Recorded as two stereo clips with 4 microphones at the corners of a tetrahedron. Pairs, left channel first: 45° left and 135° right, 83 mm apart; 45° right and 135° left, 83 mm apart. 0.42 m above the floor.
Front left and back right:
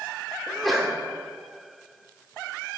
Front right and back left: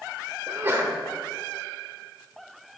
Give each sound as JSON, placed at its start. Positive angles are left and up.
{"t": 0.5, "sound": "a sneeze", "azimuth_deg": 135, "distance_m": 1.0}